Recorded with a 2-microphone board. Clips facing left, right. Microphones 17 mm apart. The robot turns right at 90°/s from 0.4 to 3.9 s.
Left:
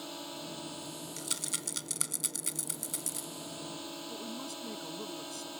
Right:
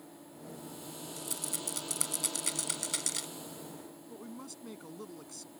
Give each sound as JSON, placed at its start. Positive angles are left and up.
{"t": 0.0, "sound": "a drone", "azimuth_deg": 110}
{"t": 1.2, "sound": "a rattle", "side_deg": 40}
{"t": 4.1, "sound": "a woman speaking", "side_deg": 0}